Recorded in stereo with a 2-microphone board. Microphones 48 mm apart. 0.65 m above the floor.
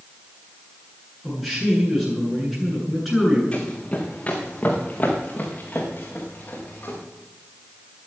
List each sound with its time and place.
1.2 s a man speaking: 5° right (ahead or behind), 8.5 m
3.5 s running footsteps: 25° left (ahead or behind), 2.5 m; by 7.0 s 40° left (ahead or behind), 5.5 m